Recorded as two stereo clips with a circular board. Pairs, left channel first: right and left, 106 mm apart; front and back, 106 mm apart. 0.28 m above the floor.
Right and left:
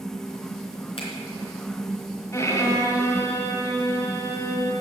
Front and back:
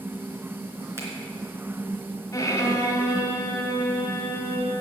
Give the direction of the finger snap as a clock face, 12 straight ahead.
4 o'clock.